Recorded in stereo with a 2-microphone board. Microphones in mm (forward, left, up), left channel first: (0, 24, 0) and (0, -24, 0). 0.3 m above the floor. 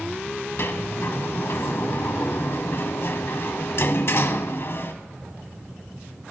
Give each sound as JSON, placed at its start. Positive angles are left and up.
{"t": 0.6, "sound": "a sliding door", "side_deg": 60, "distance_m": 1.2}